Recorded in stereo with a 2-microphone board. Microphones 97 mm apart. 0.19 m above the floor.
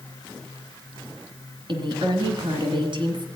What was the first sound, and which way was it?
A woman speaking, 55° right (ahead or behind).